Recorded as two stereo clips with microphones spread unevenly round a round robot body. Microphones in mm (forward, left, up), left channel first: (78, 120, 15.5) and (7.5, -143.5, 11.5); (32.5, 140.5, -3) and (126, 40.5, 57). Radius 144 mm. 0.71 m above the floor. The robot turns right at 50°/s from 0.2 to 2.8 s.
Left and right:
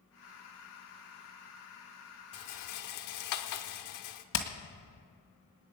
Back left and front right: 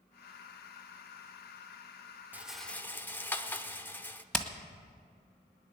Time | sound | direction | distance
2.3 | a rattle | 35° left | 1.1 m
4.3 | hammering | 45° left | 2.0 m